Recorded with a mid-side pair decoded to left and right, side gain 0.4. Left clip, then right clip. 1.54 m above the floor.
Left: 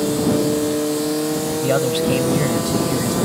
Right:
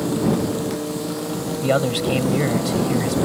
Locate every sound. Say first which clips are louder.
1.6 s a man speaking: even; 10° right